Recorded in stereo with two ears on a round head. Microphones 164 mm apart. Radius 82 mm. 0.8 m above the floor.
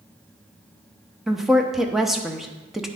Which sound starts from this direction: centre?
A woman speaking, at 1.3 s.